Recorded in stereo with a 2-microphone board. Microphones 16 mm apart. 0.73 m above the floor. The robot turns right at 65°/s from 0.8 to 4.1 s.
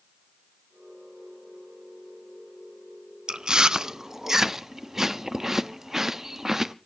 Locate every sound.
3.3 s chewing: 60° right (ahead or behind), 0.6 m; by 6.8 s 25° right (ahead or behind), 0.6 m